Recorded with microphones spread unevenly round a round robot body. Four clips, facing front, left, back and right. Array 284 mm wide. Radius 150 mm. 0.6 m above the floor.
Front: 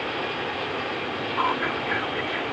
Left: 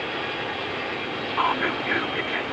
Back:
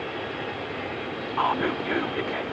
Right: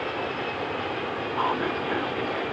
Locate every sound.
1.4 s whispering: 170° left